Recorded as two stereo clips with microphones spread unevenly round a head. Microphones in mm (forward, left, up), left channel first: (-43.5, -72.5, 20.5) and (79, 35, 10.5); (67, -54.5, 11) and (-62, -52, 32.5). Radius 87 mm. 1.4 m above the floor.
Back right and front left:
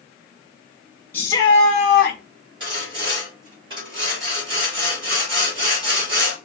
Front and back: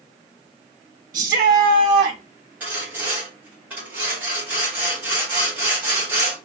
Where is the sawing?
105° left, 2.5 m.